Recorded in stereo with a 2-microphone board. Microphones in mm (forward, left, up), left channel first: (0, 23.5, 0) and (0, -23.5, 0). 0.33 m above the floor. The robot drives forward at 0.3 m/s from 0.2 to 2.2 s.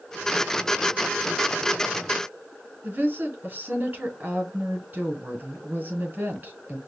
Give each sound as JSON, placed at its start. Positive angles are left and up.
{"t": 2.8, "sound": "a woman speaking", "side_deg": -40, "distance_m": 1.9}